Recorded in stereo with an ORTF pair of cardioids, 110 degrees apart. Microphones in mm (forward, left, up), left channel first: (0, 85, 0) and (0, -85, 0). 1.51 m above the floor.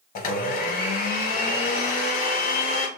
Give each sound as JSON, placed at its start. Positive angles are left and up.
{"t": 0.1, "sound": "a blender", "azimuth_deg": 60, "distance_m": 1.0}